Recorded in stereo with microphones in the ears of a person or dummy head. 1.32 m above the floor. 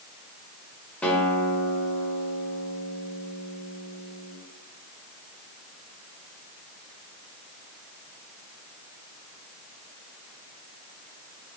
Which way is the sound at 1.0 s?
10° left (ahead or behind).